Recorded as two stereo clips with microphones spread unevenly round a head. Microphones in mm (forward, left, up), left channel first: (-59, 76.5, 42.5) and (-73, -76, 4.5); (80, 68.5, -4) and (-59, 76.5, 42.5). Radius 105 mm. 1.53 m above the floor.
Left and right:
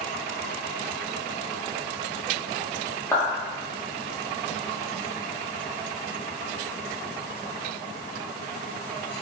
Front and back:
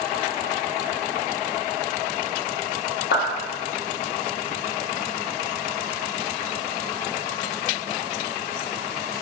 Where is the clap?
10° left, 0.8 m.